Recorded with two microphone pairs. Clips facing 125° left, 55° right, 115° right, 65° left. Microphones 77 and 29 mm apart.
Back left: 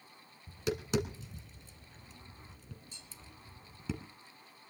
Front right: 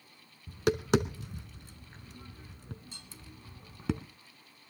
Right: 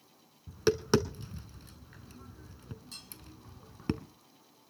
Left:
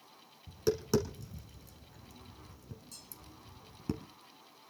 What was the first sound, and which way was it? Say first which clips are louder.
Tapping: front right 7 dB, right 3 dB; 85° right.